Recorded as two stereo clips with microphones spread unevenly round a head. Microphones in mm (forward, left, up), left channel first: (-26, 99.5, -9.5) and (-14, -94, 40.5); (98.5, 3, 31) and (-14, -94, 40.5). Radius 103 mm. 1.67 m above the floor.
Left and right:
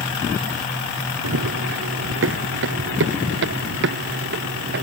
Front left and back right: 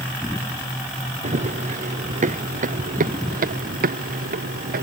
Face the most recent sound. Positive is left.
turn(degrees=-120)